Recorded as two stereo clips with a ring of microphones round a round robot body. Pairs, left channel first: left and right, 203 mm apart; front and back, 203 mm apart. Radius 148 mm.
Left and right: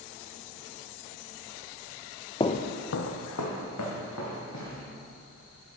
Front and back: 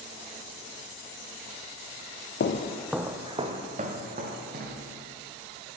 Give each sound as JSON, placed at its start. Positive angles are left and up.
{"t": 2.4, "sound": "footsteps", "azimuth_deg": 25, "distance_m": 0.6}